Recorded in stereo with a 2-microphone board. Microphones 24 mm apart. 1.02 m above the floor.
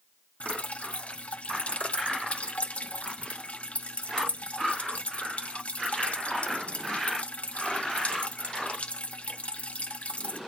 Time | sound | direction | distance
0.4 | dripping | 65° left (ahead or behind) | 0.7 m